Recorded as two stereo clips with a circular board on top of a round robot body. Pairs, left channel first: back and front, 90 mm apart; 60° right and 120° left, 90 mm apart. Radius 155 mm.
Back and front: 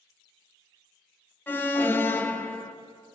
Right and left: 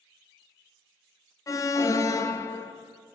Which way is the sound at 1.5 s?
115° right.